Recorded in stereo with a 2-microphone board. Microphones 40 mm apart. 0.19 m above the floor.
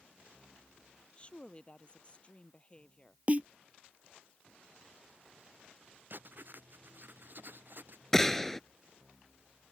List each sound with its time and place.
1.2 s a woman speaking: 30° left (ahead or behind)
3.3 s a snare drum: 35° right (ahead or behind)
6.1 s writing: 55° right (ahead or behind)
8.1 s a gunshot: 10° left (ahead or behind)